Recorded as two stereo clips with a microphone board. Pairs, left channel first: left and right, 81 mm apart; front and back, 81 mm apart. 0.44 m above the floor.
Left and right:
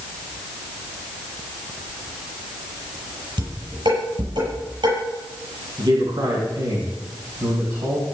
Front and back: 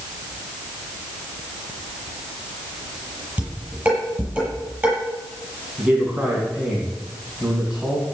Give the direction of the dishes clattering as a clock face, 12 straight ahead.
3 o'clock.